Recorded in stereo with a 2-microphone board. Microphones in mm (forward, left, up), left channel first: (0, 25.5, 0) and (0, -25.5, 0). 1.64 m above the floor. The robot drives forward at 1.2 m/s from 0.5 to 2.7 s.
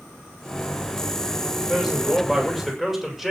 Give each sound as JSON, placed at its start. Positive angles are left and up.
{"t": 1.7, "sound": "a man speaking", "side_deg": 0, "distance_m": 8.0}